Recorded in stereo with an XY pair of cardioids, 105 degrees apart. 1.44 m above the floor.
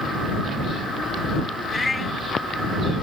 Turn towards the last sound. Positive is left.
turn(degrees=20)